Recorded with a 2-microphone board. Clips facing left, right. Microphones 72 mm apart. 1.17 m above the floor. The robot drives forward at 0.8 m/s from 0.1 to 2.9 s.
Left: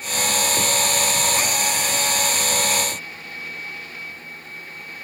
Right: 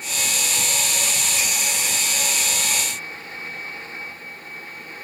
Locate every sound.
Only background noise.